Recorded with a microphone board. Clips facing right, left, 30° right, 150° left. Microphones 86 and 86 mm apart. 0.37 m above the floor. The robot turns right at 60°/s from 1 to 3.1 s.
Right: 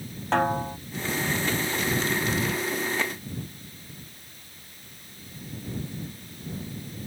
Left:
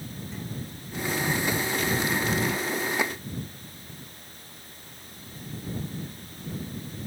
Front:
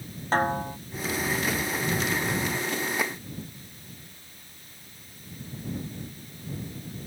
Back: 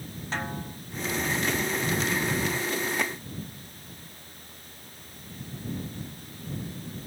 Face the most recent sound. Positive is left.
turn(degrees=50)